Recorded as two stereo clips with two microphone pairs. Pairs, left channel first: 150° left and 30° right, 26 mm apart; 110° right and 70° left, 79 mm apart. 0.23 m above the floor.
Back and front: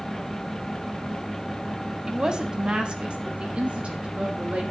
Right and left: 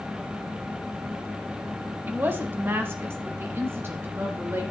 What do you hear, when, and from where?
2.1 s a woman speaking: 20° left, 1.2 m; by 4.6 s 10° left, 3 m